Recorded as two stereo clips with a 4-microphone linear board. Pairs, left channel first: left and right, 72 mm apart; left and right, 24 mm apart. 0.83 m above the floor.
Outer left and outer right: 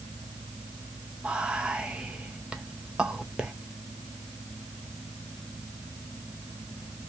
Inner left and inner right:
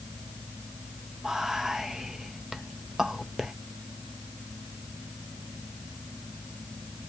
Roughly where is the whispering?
Centre.